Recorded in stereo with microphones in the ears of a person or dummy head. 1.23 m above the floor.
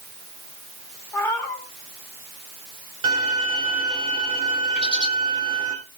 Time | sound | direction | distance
1.1 | a cat meowing | 10° left (ahead or behind) | 6.5 m
3.0 | a violin | 25° right (ahead or behind) | 6 m
4.8 | a bird | centre (ahead or behind) | 2 m